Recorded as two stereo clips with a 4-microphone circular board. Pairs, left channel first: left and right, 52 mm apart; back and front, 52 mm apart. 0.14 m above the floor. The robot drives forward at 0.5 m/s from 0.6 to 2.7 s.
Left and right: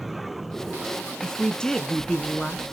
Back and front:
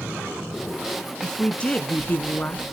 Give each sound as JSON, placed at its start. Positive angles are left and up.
{"t": 1.2, "sound": "a woman speaking", "azimuth_deg": 135, "distance_m": 1.2}